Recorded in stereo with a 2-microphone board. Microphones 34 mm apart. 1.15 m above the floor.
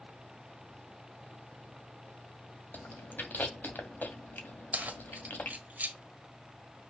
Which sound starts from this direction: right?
Keys jangling, at 4.7 s.